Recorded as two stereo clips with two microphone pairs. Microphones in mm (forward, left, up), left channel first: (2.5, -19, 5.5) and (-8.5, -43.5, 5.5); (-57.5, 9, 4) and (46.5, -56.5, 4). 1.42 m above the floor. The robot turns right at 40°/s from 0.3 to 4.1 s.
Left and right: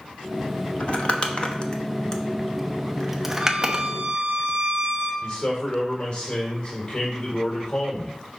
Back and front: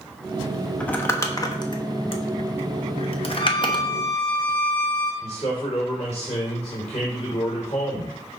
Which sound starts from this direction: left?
Crumpling, at 0.8 s.